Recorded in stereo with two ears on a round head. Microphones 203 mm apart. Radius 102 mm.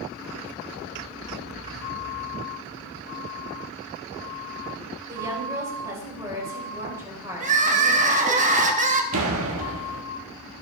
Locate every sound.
5.1 s a woman speaking: 15° right (ahead or behind), 4.5 m
7.4 s crying: 35° right (ahead or behind), 1.4 m
9.1 s a door slam: 70° right (ahead or behind), 1.6 m